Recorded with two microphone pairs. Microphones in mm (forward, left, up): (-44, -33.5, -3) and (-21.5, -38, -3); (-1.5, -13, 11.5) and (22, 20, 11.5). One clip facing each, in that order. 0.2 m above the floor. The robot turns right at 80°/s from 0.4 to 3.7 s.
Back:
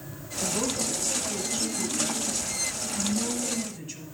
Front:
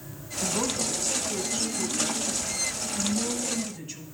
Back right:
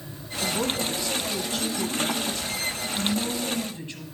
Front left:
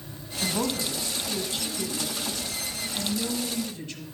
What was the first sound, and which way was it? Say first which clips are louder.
A woman speaking: front 1 dB, back right 1 dB; 5° right.